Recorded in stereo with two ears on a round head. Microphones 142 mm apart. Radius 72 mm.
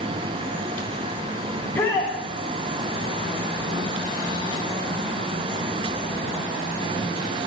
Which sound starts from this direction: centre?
A shout, at 1.6 s.